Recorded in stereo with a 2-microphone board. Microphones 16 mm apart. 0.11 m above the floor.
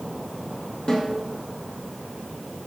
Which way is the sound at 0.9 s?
55° left (ahead or behind).